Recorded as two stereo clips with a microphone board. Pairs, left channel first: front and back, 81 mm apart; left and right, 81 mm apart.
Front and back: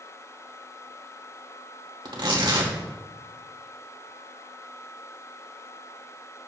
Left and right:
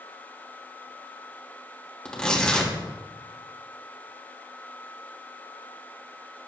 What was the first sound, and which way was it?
Tearing paper, 170° left.